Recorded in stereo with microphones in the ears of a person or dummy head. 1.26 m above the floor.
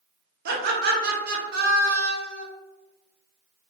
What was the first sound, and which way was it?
Laughter, 45° right (ahead or behind).